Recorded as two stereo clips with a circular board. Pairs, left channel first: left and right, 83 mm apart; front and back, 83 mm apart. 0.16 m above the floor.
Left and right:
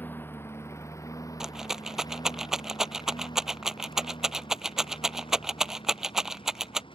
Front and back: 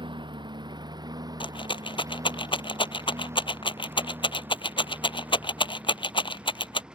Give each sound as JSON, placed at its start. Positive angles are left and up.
{"t": 0.0, "sound": "a lawn mower", "azimuth_deg": 160}
{"t": 1.4, "sound": "a rattle", "azimuth_deg": -5}